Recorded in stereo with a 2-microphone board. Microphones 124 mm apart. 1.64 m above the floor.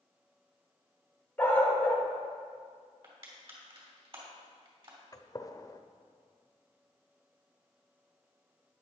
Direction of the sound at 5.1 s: 25° left (ahead or behind).